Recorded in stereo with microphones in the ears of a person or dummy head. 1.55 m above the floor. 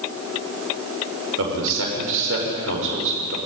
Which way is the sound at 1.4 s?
70° right (ahead or behind).